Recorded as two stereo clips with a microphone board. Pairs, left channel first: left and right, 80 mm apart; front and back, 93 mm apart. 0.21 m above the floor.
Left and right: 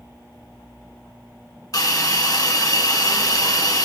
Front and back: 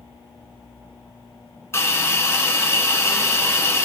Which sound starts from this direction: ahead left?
A hiss, at 1.7 s.